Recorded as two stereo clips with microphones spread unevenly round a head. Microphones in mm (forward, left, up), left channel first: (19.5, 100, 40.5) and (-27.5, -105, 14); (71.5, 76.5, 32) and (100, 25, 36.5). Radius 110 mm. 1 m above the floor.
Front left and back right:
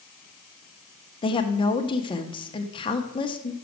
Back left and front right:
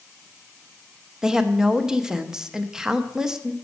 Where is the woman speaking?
20° left, 0.7 m.